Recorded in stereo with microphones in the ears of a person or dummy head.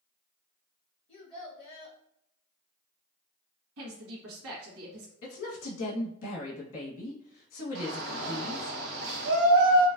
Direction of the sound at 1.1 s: 30° left (ahead or behind).